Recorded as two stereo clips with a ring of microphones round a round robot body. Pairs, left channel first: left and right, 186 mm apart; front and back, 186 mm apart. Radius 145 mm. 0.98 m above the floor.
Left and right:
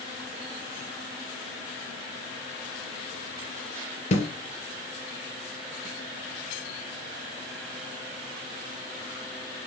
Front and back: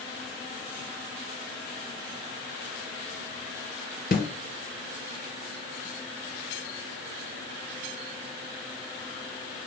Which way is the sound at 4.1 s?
40° left.